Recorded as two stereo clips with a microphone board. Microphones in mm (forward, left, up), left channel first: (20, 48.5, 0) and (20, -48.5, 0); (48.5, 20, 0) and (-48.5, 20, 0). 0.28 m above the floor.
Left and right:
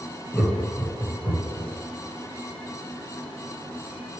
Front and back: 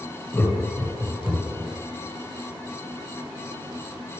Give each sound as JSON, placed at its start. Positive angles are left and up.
{"t": 0.3, "sound": "laughter", "azimuth_deg": 10, "distance_m": 1.4}